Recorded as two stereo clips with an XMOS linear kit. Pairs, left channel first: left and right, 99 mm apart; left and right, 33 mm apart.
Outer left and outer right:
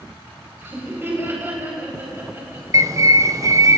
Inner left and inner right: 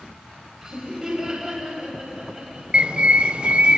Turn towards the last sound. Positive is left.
turn(degrees=-35)  # may be behind; listen again after turning